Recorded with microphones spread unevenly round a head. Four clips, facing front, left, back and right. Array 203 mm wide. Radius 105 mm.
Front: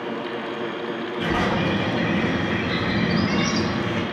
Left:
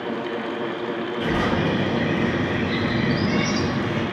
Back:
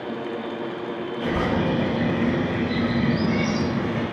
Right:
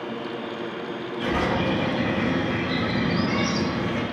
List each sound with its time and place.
1.2 s a bird: 5° left, 2.5 m